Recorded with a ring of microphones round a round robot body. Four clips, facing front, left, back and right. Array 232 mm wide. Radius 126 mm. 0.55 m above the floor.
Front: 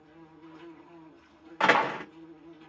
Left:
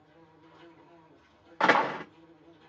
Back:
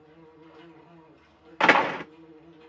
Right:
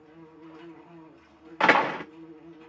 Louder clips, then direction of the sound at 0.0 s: Right 9 dB, even; 125° right.